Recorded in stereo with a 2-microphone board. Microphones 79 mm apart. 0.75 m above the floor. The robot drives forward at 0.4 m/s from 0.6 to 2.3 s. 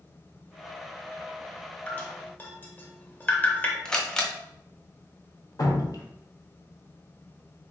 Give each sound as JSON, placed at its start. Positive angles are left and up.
{"t": 1.9, "sound": "dripping", "side_deg": 20, "distance_m": 0.7}
{"t": 3.9, "sound": "a camera shutter", "side_deg": 10, "distance_m": 0.6}
{"t": 5.6, "sound": "dripping", "side_deg": 50, "distance_m": 0.7}